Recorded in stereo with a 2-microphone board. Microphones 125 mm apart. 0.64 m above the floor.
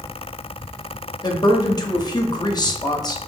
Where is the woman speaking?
35° left (ahead or behind), 0.6 m.